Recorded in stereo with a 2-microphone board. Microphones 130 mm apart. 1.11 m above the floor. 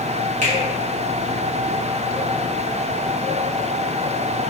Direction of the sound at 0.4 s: 60° right (ahead or behind).